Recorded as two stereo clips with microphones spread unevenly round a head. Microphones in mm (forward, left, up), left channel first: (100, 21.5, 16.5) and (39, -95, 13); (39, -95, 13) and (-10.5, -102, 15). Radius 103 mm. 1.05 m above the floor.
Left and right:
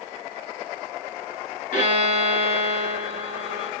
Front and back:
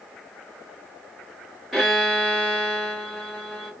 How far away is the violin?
About 0.9 m.